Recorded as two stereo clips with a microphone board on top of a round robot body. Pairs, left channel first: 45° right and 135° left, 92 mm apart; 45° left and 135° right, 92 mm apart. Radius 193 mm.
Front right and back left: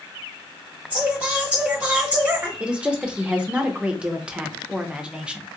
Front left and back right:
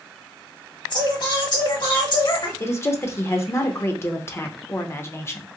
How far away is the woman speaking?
About 0.8 m.